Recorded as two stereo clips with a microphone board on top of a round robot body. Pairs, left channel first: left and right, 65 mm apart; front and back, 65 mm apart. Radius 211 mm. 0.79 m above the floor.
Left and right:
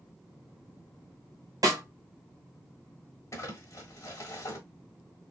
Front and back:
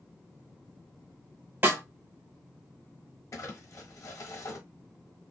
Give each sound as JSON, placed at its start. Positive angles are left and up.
{"t": 1.6, "sound": "a snare drum", "azimuth_deg": -120, "distance_m": 1.6}
{"t": 3.3, "sound": "crumpling", "azimuth_deg": 45, "distance_m": 1.3}